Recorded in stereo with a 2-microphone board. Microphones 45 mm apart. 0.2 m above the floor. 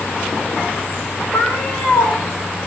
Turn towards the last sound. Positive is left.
turn(degrees=40)  # may be behind; listen again after turning